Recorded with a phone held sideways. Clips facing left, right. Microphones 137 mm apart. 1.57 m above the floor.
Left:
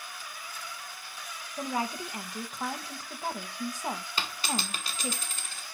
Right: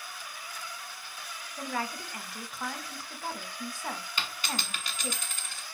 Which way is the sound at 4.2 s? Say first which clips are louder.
Left 3 dB; 35° left (ahead or behind).